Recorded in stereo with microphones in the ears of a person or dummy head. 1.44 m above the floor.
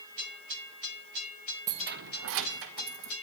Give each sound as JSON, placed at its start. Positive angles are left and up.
{"t": 1.7, "sound": "keys jangling", "side_deg": -20, "distance_m": 0.6}